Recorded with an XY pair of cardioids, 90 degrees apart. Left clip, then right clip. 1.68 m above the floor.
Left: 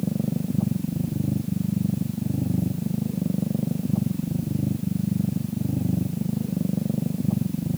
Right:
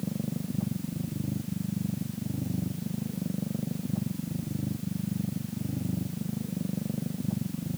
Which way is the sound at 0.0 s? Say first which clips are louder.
Left 7 dB; 50° left.